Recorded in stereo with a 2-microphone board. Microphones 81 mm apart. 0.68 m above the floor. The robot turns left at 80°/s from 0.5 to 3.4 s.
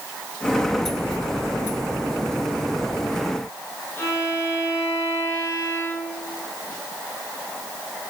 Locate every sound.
4.0 s a violin: 40° left (ahead or behind), 5.5 m